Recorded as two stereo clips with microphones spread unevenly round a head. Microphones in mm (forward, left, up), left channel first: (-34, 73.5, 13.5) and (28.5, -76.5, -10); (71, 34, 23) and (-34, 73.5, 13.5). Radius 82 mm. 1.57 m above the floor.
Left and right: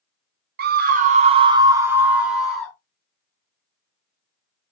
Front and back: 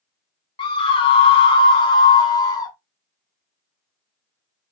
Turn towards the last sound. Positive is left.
turn(degrees=30)